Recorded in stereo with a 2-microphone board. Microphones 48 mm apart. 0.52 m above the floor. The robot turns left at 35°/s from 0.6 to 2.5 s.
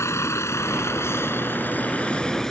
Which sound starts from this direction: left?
A vehicle, at 0.0 s.